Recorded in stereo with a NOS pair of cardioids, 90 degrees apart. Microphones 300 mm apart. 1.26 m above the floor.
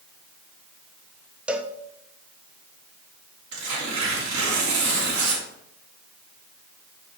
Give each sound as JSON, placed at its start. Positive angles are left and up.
{"t": 1.5, "sound": "a cowbell", "azimuth_deg": -5, "distance_m": 1.0}
{"t": 3.5, "sound": "tearing paper", "azimuth_deg": -65, "distance_m": 3.5}